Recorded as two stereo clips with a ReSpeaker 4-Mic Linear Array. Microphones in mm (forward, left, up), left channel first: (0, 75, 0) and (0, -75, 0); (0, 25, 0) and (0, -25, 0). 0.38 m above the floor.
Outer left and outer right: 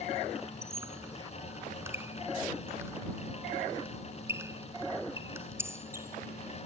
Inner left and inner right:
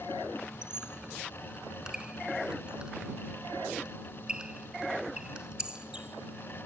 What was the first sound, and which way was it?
A squeak, 20° right (ahead or behind).